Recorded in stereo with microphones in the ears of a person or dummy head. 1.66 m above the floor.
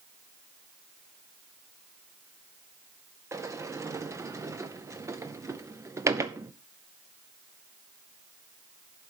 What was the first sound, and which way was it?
A sliding door, 10° right (ahead or behind).